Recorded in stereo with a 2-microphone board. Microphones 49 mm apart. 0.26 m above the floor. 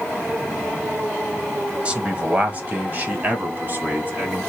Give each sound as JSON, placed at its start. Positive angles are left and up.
{"t": 1.9, "sound": "a man speaking", "side_deg": -25, "distance_m": 0.9}